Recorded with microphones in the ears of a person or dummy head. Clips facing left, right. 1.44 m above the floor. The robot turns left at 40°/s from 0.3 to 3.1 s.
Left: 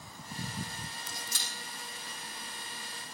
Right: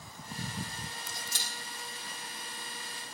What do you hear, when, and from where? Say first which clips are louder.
1.3 s a camera shutter: right 1 dB; 75° left (ahead or behind), 3.5 m; by 1.5 s 65° left (ahead or behind), 3.5 m